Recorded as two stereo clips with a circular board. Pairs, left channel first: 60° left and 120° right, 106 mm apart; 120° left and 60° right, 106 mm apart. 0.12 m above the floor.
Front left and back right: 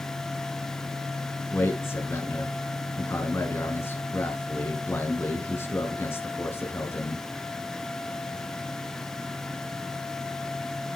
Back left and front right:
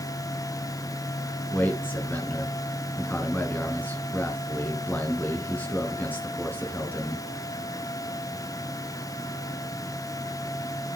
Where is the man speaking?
75° left, 1.4 m.